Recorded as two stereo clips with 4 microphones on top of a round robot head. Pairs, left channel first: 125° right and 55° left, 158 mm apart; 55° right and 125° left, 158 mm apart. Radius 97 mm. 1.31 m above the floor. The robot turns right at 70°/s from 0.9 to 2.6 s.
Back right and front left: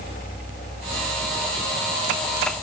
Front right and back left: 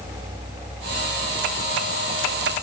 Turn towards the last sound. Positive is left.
No sound to turn to.